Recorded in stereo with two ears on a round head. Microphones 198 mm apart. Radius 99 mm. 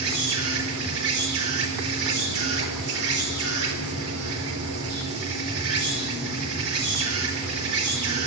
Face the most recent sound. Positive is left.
turn(degrees=-70)  # may be behind; listen again after turning